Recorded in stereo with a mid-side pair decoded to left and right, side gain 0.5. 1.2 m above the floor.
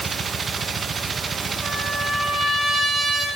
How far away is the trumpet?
About 5 m.